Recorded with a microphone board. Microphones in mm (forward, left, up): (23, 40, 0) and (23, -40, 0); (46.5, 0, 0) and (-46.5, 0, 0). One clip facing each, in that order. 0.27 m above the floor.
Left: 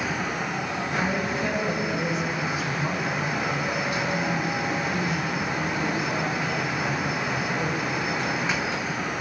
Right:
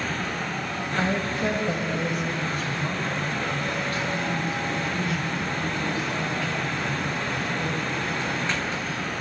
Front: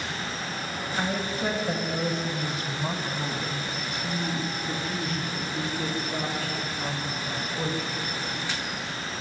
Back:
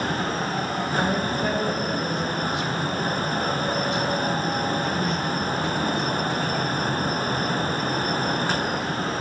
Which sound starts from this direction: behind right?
A woman speaking, at 1.0 s.